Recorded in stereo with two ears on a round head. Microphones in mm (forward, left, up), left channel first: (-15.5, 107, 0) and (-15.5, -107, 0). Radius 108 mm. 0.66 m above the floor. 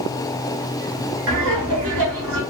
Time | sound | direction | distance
1.3 | laughter | 60° right (ahead or behind) | 1.6 m